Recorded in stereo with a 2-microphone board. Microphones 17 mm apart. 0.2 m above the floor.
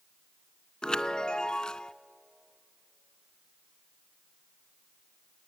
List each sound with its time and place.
0.8 s a chime: 50° left (ahead or behind), 0.5 m